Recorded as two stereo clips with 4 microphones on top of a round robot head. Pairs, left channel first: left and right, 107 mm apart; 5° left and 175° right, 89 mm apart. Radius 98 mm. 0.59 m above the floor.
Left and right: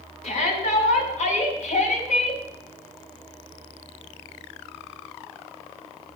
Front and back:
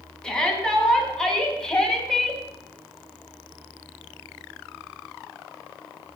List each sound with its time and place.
0.2 s a shout: 90° left, 4.5 m